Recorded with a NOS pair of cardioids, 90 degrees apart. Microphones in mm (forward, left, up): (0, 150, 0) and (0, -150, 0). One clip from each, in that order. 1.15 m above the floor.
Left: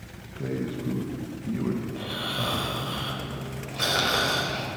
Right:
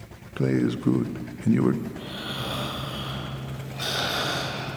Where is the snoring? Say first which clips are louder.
Left 3 dB; 30° left, 3 m.